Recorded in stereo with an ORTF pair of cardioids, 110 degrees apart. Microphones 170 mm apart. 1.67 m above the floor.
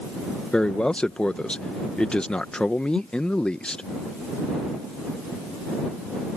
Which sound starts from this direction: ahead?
A man speaking, at 0.5 s.